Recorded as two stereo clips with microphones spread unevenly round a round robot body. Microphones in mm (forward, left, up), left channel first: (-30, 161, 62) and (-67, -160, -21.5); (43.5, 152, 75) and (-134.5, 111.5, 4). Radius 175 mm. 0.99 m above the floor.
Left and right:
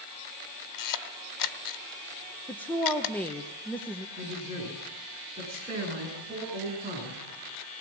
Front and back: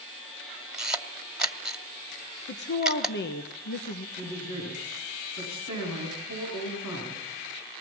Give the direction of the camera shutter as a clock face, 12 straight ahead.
9 o'clock.